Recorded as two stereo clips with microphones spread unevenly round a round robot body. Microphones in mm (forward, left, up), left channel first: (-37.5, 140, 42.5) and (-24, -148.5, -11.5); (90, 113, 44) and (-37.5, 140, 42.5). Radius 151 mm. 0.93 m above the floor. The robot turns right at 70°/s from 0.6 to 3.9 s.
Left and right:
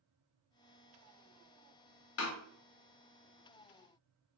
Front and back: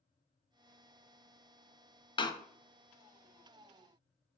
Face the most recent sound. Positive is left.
turn(degrees=160)